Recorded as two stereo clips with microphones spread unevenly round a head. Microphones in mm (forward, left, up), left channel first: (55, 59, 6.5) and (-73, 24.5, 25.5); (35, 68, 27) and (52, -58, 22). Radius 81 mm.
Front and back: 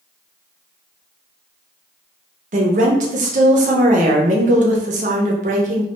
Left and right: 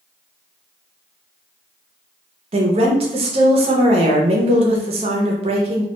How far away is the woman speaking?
About 0.5 m.